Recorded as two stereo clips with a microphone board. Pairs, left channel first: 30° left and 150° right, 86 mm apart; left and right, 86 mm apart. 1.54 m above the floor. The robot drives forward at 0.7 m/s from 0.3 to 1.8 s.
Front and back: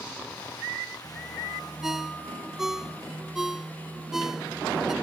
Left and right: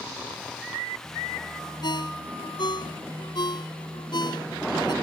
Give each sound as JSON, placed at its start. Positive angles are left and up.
{"t": 1.8, "sound": "a ringtone", "azimuth_deg": 125}